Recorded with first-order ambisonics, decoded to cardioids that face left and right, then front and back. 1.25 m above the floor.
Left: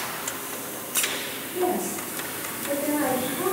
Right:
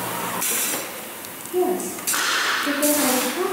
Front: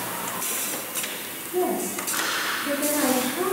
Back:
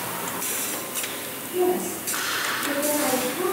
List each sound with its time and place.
1.5 s a woman speaking: 80° right, 1.0 m